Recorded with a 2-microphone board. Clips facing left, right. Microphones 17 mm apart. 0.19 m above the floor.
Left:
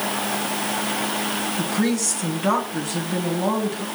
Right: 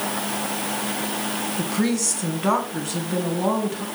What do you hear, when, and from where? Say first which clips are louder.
1.6 s a woman speaking: even; 5° right (ahead or behind), 1.6 m